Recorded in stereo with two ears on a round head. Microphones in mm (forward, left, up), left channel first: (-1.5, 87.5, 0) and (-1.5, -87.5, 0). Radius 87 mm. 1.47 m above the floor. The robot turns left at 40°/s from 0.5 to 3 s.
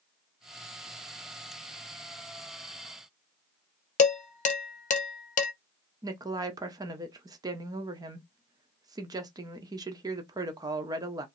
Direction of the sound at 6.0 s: 20° right (ahead or behind).